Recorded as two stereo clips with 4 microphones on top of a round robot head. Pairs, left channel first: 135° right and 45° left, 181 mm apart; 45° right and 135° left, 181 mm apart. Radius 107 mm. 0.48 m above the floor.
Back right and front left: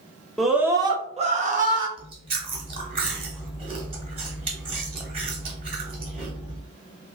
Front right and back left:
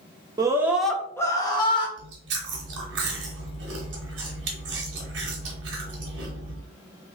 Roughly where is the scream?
Behind left.